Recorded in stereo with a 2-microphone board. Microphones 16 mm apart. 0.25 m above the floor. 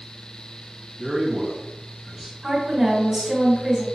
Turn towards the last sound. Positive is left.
turn(degrees=-30)  # may be behind; listen again after turning